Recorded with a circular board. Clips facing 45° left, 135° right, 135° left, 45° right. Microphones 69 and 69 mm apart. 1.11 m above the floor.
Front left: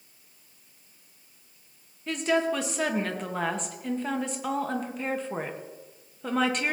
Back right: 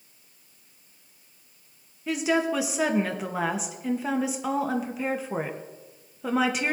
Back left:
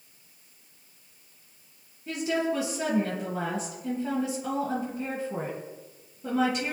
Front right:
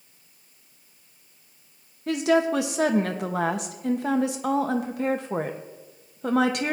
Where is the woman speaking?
50° right, 1.3 m.